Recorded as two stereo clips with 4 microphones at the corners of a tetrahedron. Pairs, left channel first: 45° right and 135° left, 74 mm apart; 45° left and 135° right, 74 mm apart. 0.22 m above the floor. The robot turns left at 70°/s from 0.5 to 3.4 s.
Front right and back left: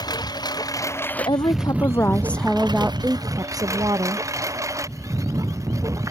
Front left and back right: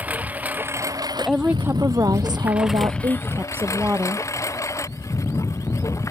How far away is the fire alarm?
I don't hear a fire alarm.